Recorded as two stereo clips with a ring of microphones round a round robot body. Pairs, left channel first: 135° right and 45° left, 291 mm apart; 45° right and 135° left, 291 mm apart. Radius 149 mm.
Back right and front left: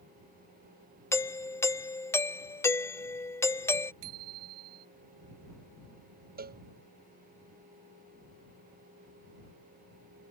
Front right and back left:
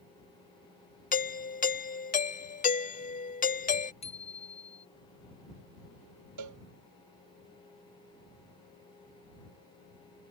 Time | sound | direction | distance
1.1 | a doorbell | 65° right | ?
4.0 | a bicycle bell | 25° left | ?
6.4 | a cowbell | 105° left | ?